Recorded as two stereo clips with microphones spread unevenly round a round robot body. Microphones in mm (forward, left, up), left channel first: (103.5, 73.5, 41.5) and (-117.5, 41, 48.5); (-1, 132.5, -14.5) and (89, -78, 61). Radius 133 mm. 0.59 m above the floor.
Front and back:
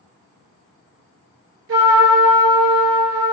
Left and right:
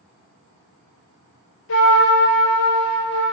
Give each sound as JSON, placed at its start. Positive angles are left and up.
{"t": 1.7, "sound": "a trumpet", "azimuth_deg": 160, "distance_m": 2.0}